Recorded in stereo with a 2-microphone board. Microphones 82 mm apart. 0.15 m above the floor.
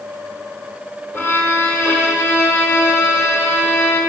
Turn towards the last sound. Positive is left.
turn(degrees=25)  # may be behind; listen again after turning